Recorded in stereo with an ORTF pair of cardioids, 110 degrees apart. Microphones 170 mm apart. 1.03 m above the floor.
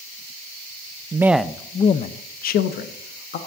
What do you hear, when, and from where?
1.1 s a man speaking: 20° right, 0.5 m; by 3.4 s 75° left, 1.2 m